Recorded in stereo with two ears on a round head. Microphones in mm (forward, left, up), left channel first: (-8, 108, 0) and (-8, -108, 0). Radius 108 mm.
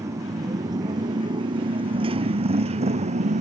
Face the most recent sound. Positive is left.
turn(degrees=-30)  # may be behind; listen again after turning